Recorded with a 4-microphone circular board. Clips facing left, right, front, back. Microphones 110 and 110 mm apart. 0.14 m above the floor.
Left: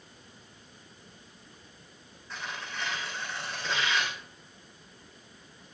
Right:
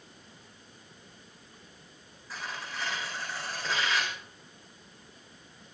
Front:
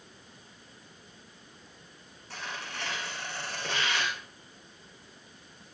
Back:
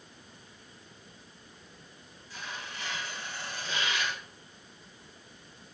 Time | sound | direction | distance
2.3 | tearing paper | straight ahead | 7.5 m